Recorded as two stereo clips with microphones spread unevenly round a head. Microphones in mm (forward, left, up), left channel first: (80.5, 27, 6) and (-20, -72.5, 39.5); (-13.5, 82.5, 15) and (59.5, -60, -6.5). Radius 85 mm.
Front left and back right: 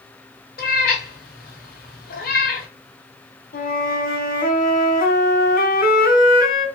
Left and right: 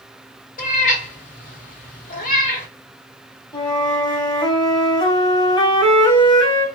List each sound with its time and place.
0.6 s a cat meowing: 85° left, 1.8 m
3.5 s a flute: 50° left, 2 m